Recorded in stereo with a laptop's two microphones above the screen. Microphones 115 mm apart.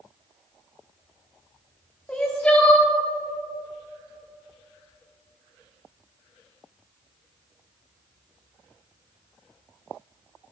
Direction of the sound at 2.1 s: 10° left (ahead or behind).